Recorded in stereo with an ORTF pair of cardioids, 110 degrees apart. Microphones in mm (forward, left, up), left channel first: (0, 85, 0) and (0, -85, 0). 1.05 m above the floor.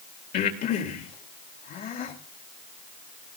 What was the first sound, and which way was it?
Breathing, 60° left.